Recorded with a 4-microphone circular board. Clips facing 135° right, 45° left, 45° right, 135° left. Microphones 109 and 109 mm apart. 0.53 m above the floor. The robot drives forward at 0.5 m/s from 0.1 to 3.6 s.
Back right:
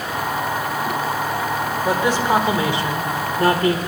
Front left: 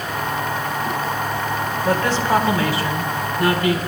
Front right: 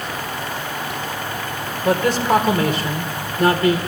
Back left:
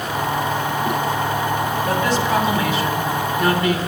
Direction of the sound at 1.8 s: 60° right.